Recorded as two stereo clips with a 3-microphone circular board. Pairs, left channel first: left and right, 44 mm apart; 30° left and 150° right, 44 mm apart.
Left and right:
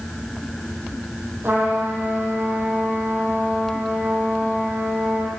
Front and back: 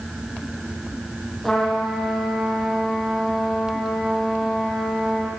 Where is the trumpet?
60° right, 6 m.